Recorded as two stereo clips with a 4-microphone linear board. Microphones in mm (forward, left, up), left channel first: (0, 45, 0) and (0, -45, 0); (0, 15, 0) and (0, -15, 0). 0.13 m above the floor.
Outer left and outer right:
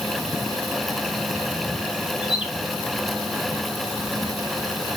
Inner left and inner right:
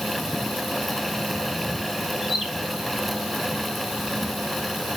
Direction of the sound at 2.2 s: 5° right (ahead or behind).